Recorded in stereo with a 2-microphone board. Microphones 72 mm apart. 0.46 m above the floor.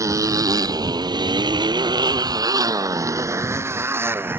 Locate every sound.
0.0 s a motorcycle: 45° right (ahead or behind); by 4.4 s 30° right (ahead or behind)